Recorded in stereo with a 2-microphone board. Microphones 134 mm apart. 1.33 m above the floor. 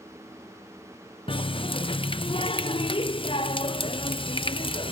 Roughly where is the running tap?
Left.